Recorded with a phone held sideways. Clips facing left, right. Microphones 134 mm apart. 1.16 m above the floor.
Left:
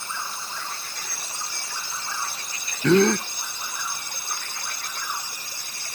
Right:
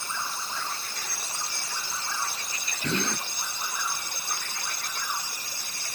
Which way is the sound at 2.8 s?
80° left.